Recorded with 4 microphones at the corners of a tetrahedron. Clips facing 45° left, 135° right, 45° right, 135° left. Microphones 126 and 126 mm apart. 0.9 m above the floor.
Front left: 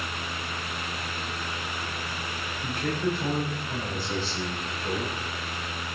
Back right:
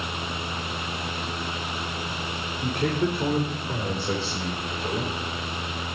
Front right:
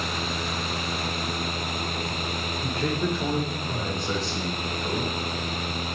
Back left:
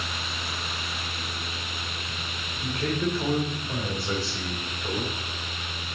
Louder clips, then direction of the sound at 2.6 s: Back right 4 dB, even; 130° right.